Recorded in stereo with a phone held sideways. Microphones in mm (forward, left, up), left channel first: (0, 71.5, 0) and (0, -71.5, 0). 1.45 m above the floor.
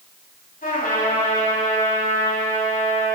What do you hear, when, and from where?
0.6 s a trumpet: 85° left, 3.5 m